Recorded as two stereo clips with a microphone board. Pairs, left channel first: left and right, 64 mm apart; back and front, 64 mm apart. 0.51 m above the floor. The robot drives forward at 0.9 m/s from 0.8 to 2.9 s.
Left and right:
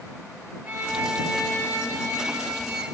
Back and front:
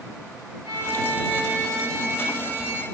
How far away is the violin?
About 3 m.